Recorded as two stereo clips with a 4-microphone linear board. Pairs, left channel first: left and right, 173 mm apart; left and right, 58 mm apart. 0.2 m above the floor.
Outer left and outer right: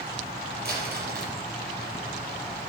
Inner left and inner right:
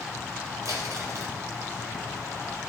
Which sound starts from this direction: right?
Crumpling, at 0.7 s.